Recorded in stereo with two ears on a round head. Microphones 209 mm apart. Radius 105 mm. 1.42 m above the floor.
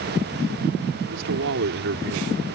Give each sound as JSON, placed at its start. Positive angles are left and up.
{"t": 1.1, "sound": "a man speaking", "side_deg": -60}